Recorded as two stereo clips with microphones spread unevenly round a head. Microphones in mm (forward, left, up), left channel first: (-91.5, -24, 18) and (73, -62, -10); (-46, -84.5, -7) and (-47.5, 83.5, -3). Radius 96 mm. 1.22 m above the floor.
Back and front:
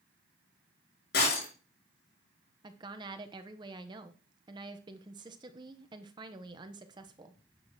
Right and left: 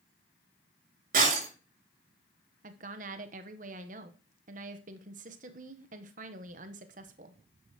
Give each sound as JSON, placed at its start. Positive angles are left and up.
{"t": 1.1, "sound": "breaking glass", "azimuth_deg": 125, "distance_m": 7.0}
{"t": 2.6, "sound": "a woman speaking", "azimuth_deg": 45, "distance_m": 1.0}